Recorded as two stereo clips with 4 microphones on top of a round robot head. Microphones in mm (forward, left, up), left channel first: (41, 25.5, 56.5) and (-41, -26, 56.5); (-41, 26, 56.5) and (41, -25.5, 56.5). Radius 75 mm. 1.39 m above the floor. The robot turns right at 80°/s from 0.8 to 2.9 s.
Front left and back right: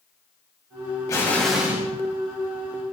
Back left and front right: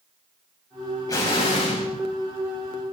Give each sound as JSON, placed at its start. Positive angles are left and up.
{"t": 1.1, "sound": "an explosion", "azimuth_deg": 90, "distance_m": 6.0}